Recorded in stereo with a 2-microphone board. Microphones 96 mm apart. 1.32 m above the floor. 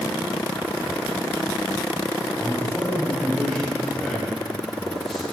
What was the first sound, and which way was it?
A man speaking, centre (ahead or behind).